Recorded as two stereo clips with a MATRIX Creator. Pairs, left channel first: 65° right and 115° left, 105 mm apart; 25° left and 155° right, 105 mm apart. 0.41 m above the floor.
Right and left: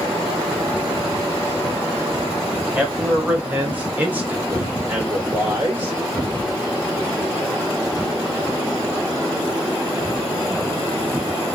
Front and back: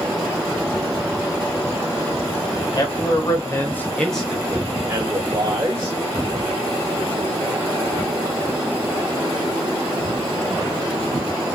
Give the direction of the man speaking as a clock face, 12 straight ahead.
11 o'clock.